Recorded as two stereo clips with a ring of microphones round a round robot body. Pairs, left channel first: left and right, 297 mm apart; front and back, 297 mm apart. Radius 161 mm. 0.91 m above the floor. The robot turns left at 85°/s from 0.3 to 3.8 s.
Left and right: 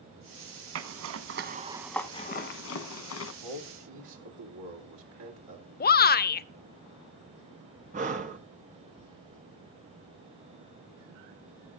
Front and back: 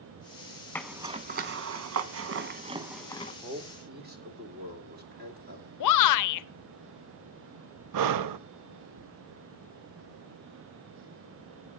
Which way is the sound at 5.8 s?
30° left.